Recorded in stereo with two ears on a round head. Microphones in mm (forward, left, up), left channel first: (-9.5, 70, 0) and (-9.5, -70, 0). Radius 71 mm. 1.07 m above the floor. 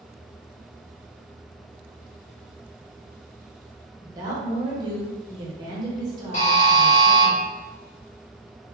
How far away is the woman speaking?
About 0.7 m.